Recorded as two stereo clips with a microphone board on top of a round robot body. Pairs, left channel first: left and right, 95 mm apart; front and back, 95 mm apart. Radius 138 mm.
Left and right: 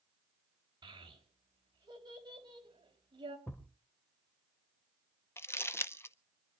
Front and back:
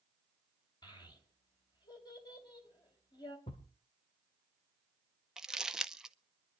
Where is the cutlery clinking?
No cutlery clinking in this recording.